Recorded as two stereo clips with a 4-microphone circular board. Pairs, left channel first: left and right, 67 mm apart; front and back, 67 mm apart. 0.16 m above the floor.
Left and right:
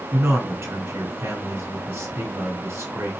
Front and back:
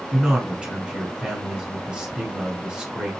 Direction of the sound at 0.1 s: 115° right.